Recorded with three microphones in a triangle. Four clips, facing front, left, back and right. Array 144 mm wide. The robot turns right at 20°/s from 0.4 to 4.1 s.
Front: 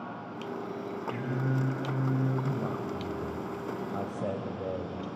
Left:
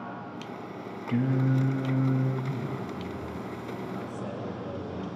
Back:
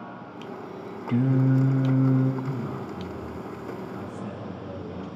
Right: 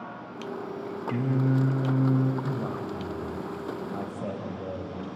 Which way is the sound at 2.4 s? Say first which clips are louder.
Right 3 dB, even; 55° right.